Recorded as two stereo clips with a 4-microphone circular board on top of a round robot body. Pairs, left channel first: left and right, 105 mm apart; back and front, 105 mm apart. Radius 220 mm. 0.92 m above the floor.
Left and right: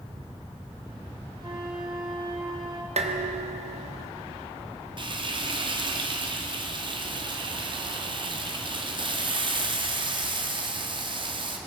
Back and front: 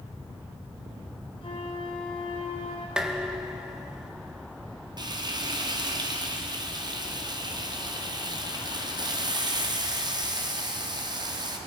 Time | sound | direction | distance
1.4 | a flute | 140° right | 2.5 m
3.0 | dishes clattering | 85° right | 1.5 m
5.0 | frying | 50° right | 2.0 m